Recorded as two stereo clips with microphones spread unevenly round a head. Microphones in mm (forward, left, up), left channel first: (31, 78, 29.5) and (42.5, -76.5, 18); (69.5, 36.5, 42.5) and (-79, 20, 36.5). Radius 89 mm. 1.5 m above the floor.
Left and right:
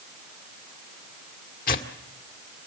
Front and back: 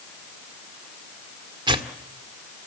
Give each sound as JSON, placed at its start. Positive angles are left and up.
{"t": 1.7, "sound": "tearing paper", "azimuth_deg": 125, "distance_m": 1.8}